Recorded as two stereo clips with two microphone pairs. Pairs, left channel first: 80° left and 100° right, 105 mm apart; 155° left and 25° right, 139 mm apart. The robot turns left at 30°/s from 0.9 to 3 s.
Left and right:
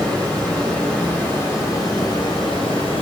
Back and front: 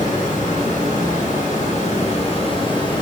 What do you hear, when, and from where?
0.0 s running water: 160° left, 0.8 m; by 3.0 s 95° left, 0.8 m